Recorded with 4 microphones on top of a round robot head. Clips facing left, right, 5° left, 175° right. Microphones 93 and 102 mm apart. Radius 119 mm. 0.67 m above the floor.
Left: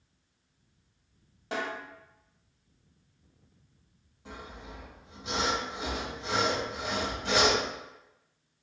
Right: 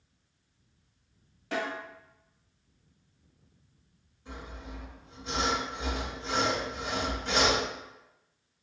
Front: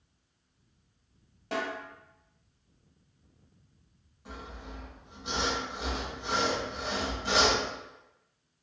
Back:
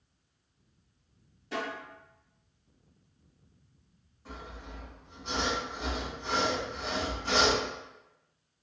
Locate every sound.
1.5 s a snare drum: 25° left, 1.3 m
4.2 s sawing: 85° left, 1.3 m